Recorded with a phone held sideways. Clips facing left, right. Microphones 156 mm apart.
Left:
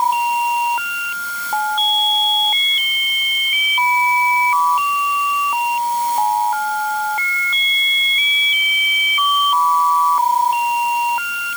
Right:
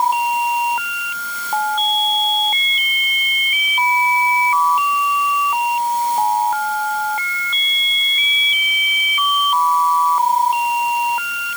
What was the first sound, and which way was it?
Only background noise.